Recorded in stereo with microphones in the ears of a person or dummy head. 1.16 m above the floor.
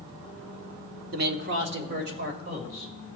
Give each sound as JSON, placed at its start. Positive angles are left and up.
{"t": 1.1, "sound": "a man speaking", "side_deg": -45, "distance_m": 0.9}